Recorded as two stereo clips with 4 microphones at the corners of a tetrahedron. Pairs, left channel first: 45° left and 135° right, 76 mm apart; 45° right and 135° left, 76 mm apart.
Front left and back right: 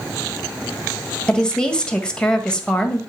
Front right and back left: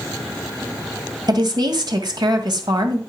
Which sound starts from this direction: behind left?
A woman speaking, at 1.3 s.